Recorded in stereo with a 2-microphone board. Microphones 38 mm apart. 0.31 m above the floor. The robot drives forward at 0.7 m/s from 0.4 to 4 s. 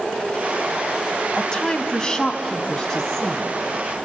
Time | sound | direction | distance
1.4 | a woman speaking | 25° left (ahead or behind) | 1.8 m